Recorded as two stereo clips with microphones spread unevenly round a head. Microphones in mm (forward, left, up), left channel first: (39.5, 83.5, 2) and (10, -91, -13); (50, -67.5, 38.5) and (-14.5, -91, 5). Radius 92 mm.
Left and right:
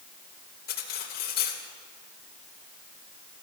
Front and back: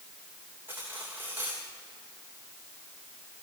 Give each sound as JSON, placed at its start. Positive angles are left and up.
{"t": 0.7, "sound": "cutlery clinking", "azimuth_deg": 120, "distance_m": 3.0}